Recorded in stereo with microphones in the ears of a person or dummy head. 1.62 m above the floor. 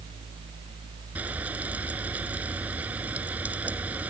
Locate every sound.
1.1 s frying: 10° right (ahead or behind)